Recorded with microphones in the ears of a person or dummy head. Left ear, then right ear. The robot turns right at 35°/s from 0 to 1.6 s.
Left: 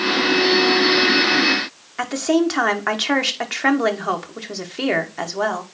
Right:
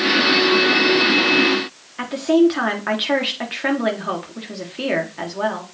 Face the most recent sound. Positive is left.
turn(degrees=30)  # may be behind; listen again after turning